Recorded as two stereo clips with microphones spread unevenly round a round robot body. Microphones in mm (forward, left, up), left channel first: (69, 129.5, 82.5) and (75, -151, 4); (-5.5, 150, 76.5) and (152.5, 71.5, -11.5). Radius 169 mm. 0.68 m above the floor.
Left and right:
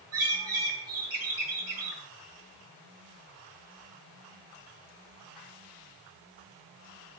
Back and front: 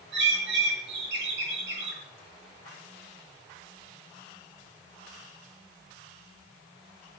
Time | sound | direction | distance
0.1 | a bird | 55° right | 6.5 m